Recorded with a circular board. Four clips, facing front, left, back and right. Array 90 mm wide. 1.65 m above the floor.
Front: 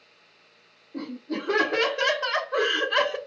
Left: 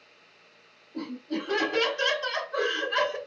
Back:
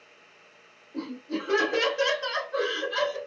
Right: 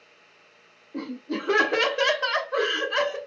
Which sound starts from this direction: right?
Laughter, at 0.9 s.